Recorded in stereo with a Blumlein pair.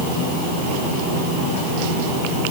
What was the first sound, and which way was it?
Only background noise.